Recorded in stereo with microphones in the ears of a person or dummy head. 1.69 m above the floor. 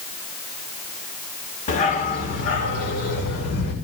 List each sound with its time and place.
1.7 s a dog barking: 45° left (ahead or behind), 2.5 m; by 3.7 s 65° left (ahead or behind), 3 m